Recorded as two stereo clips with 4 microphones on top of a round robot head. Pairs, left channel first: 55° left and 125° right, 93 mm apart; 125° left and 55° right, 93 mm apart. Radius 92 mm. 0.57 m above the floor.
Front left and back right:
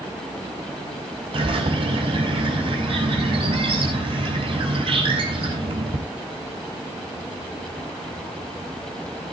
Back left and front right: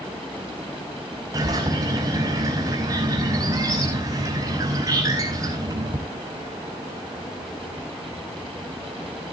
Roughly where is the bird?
Right.